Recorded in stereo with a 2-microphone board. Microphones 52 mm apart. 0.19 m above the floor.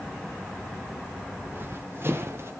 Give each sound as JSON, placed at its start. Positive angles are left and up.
{"t": 1.4, "sound": "running footsteps", "side_deg": -40, "distance_m": 3.5}